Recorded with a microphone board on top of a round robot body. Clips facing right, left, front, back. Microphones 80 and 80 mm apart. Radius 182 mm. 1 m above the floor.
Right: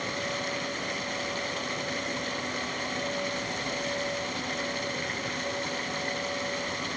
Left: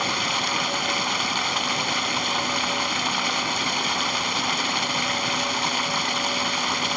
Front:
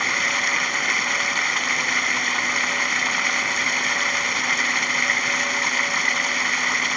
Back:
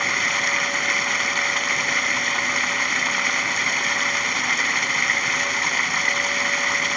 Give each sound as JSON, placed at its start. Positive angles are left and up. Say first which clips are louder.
{"t": 0.0, "sound": "running water", "louder": "left 6 dB, even", "azimuth_deg": 90}